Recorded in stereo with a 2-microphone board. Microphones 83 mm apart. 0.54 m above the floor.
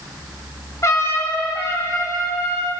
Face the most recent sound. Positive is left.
turn(degrees=35)  # may be behind; listen again after turning